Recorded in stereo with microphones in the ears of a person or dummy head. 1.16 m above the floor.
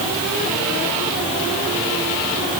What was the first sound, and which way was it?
Only background noise.